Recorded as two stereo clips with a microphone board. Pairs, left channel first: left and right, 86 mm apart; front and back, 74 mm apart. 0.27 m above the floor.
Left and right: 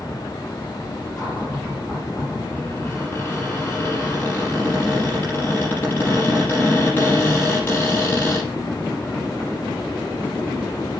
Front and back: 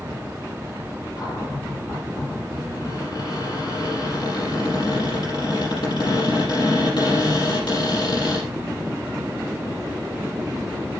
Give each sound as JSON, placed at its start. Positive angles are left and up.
{"t": 1.2, "sound": "a cupboard door", "azimuth_deg": 25, "distance_m": 6.0}